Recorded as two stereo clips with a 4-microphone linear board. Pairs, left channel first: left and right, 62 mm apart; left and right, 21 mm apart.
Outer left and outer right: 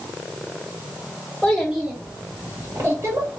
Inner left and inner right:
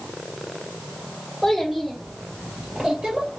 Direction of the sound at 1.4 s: 5° left (ahead or behind).